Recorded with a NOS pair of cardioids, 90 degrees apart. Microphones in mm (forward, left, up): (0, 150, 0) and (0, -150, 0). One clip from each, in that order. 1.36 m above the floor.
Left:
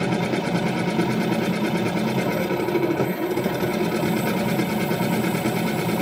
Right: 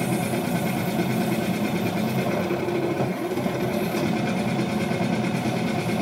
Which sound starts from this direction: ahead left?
A machine running, at 0.0 s.